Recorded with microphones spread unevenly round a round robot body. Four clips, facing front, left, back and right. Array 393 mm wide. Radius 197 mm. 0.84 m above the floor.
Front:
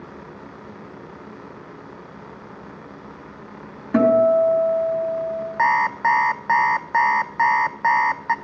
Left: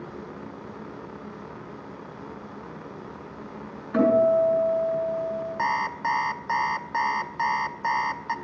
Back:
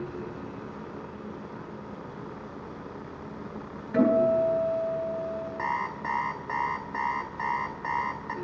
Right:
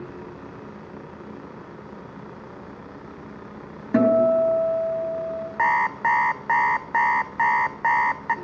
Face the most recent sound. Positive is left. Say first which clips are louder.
# right 7 dB, front 14 dB
turn(degrees=-20)